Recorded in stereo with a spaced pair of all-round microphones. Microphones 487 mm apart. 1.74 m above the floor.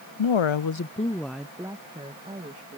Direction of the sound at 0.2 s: 65° left (ahead or behind).